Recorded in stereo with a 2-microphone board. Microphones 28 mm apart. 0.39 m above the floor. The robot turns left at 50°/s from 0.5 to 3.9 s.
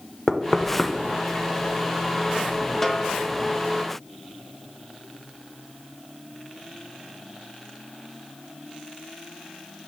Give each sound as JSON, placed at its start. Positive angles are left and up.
{"t": 0.3, "sound": "knocking", "side_deg": 5, "distance_m": 0.6}
{"t": 2.8, "sound": "a snare drum", "side_deg": 5, "distance_m": 0.7}